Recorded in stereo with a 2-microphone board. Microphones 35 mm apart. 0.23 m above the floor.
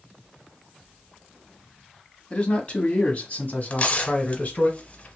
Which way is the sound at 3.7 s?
40° left (ahead or behind).